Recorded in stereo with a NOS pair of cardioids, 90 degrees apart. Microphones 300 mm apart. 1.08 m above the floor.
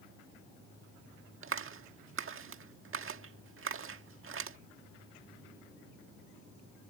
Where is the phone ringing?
No phone ringing in this recording.